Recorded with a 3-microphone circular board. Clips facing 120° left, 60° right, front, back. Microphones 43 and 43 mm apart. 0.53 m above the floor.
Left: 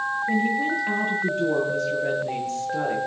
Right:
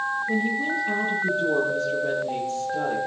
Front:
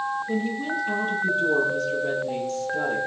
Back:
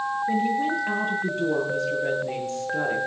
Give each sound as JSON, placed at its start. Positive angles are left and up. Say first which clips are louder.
{"t": 0.3, "sound": "a woman speaking", "louder": "left 4 dB, back 3 dB", "azimuth_deg": 160, "distance_m": 9.0}